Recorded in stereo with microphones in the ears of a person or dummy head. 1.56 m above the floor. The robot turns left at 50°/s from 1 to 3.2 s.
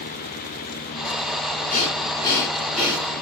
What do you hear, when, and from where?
1.7 s breathing: 50° left, 1.7 m; by 3.1 s 20° right, 1.7 m